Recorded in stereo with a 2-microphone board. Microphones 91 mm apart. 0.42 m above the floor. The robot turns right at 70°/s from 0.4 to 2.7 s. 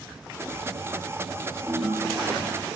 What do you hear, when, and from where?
1.7 s a ringtone: 170° right, 1.8 m; by 2.7 s 100° right, 1.8 m